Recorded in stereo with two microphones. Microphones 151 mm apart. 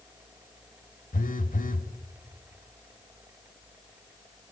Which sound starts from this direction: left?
A phone buzzing, at 1.1 s.